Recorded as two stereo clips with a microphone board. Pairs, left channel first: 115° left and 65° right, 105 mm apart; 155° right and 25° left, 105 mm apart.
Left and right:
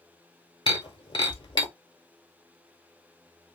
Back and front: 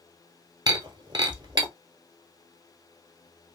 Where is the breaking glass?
70° left, 0.9 m.